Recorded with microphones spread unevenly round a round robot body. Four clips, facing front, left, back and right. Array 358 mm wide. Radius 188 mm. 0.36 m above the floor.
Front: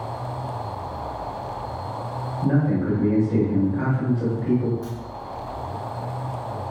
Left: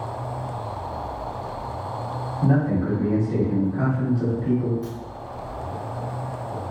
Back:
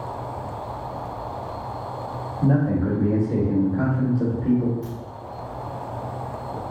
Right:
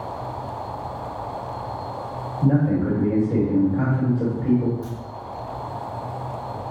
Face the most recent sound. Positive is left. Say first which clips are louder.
# left 1 dB, front 1 dB
turn(degrees=-55)